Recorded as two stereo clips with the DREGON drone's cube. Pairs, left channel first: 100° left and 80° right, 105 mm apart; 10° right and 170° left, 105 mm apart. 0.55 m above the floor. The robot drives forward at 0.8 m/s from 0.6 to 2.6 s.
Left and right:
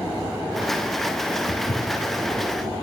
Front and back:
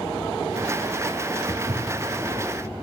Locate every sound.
1.5 s footsteps: 125° left, 1.6 m; by 2.4 s 145° left, 2 m